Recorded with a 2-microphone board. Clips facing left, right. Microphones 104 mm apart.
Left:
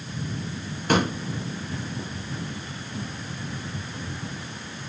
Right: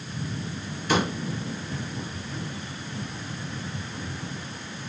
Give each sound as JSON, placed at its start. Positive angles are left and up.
{"t": 0.9, "sound": "a pop", "side_deg": 50, "distance_m": 3.5}